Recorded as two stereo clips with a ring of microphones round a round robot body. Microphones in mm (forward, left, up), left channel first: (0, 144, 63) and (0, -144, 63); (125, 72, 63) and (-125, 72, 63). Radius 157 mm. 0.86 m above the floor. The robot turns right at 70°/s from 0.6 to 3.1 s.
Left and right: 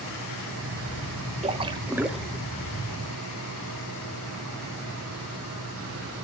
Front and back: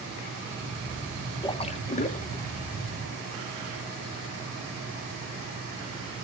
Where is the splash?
50° right, 0.9 m; by 2.4 s 20° left, 0.9 m.